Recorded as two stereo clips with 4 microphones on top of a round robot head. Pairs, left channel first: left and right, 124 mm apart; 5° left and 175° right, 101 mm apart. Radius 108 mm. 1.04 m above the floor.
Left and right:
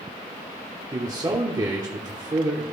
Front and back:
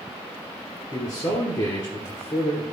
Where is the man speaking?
40° right, 1.2 m.